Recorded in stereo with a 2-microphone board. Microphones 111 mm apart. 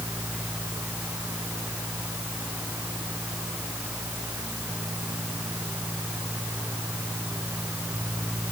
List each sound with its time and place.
Only background noise.